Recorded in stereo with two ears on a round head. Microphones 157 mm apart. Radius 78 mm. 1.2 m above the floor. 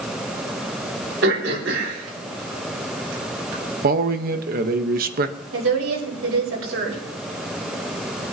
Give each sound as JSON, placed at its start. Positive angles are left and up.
{"t": 1.2, "sound": "throat clearing", "side_deg": -75, "distance_m": 4.0}
{"t": 3.8, "sound": "a man speaking", "side_deg": -55, "distance_m": 1.0}
{"t": 5.5, "sound": "a woman speaking", "side_deg": -80, "distance_m": 4.5}